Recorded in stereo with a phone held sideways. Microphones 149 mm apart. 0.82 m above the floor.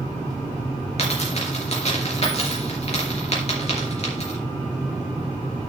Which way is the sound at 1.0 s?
50° left (ahead or behind).